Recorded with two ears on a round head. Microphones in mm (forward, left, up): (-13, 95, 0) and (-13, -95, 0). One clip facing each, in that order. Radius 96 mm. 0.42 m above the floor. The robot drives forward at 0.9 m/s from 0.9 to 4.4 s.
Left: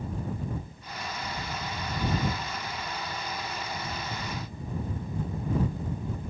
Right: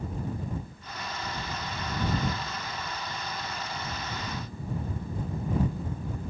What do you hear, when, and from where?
Only background noise.